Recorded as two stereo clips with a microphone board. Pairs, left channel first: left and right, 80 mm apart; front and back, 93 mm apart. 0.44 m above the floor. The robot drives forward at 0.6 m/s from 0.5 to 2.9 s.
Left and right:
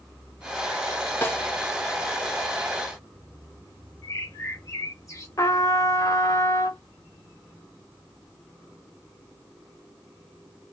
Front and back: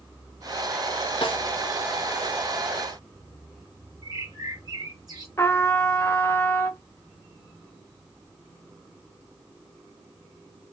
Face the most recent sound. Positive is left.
turn(degrees=55)